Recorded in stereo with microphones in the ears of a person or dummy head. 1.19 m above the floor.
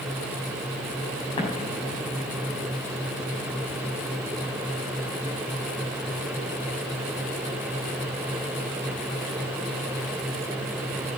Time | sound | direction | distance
1.4 | an explosion | 30° left (ahead or behind) | 6 m